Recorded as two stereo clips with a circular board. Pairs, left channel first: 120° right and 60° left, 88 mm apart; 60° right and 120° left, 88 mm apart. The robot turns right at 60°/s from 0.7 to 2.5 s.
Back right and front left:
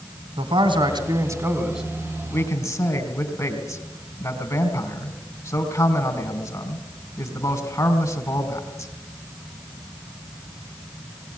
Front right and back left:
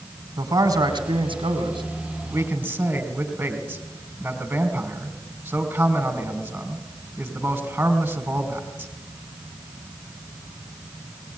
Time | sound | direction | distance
0.4 | a man speaking | 80° left | 3.5 m